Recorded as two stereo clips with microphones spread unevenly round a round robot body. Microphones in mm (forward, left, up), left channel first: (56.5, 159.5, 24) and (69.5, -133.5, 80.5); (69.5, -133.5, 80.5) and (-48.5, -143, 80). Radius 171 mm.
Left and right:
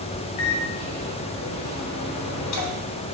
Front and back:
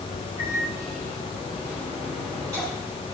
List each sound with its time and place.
0.4 s a microwave: 115° left, 2.5 m